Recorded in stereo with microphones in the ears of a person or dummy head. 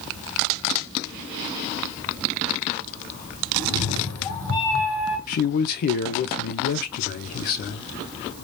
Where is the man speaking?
55° left (ahead or behind), 0.7 m.